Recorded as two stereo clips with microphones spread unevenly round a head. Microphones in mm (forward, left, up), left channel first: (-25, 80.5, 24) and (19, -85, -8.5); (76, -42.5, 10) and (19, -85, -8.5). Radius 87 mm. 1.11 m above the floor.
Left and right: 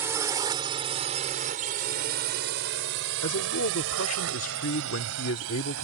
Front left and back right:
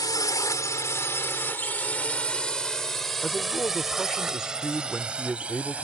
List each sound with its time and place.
0.0 s a drone: straight ahead; by 5.8 s 70° right
3.2 s a man speaking: 120° left